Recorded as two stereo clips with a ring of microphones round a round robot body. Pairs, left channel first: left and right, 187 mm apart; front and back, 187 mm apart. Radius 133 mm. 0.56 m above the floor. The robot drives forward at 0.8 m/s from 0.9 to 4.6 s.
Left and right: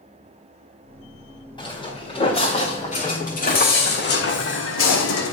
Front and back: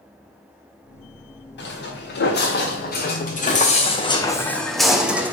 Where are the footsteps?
25° left, 5.5 m; by 5.3 s 100° left, 2 m.